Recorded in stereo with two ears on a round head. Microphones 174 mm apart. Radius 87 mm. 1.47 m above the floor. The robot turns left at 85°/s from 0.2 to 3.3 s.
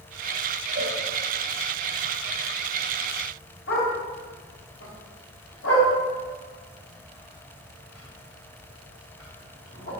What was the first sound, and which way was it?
A cowbell, 55° right (ahead or behind).